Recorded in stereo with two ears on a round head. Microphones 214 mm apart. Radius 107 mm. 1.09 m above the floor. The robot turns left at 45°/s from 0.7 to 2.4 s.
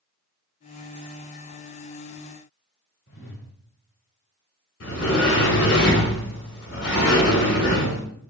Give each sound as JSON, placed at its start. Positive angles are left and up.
{"t": 3.1, "sound": "a whoosh", "side_deg": 50, "distance_m": 2.0}
{"t": 4.8, "sound": "a sliding door", "side_deg": 60, "distance_m": 2.0}